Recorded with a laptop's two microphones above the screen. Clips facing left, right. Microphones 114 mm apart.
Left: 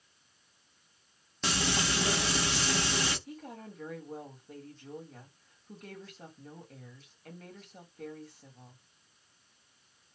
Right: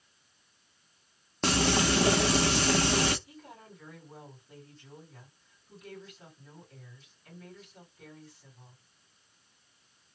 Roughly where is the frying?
Right.